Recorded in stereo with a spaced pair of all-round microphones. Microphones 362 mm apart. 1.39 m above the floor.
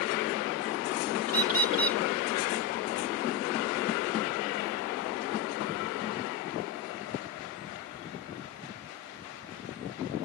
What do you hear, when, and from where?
1.3 s a bird: 65° right (ahead or behind)